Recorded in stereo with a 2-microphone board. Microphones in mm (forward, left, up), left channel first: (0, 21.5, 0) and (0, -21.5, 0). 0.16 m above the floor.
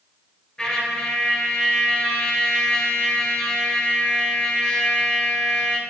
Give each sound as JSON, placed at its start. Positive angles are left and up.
{"t": 0.6, "sound": "a trumpet", "side_deg": 20, "distance_m": 1.0}